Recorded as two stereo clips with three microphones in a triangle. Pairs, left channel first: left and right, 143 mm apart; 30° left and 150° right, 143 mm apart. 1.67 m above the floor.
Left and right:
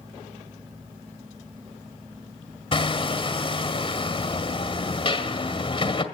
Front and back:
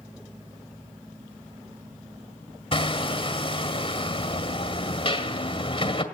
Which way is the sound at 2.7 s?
60° left.